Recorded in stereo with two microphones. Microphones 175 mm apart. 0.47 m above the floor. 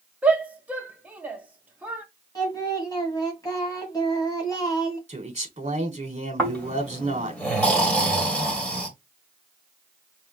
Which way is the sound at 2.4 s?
25° left (ahead or behind).